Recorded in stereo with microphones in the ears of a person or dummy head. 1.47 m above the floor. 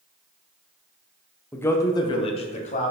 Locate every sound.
1.5 s a man speaking: 10° left (ahead or behind), 0.8 m; by 2.9 s 45° left (ahead or behind), 1.2 m